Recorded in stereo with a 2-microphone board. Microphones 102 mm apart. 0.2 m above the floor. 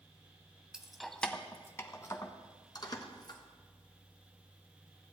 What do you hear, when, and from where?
0.7 s keys jangling: 10° right (ahead or behind), 0.7 m; by 3.4 s 45° left (ahead or behind), 1.6 m